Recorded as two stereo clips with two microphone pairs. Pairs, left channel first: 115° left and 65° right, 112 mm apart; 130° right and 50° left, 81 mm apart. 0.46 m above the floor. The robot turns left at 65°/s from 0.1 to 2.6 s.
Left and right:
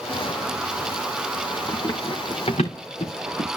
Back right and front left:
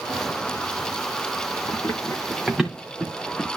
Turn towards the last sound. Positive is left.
turn(degrees=145)